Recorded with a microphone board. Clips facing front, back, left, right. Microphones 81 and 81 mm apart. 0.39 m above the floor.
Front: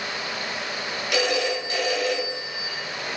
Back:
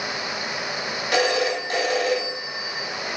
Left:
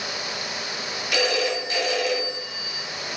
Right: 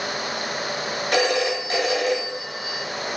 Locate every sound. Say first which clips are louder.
1.1 s a phone ringing: back 3 dB, right 2 dB; 135° right, 2.5 m